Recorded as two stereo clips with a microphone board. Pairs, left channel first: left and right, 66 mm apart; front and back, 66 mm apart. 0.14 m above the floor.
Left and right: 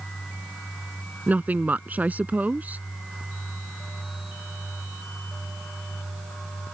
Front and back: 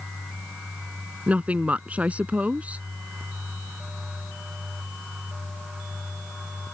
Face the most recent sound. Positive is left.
turn(degrees=-130)